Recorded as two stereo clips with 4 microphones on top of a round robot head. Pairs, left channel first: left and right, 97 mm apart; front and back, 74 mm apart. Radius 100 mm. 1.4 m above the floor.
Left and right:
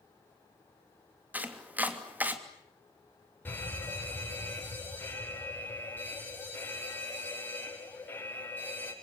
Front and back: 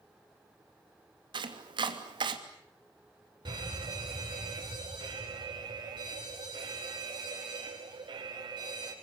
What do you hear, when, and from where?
1.3 s chopping: 165° right, 3 m
3.5 s a fire alarm: 160° left, 8.5 m